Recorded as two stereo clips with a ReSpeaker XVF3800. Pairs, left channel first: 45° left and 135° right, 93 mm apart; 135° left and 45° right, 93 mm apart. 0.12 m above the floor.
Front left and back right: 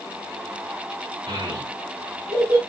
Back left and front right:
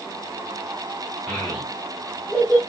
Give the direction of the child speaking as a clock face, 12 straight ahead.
5 o'clock.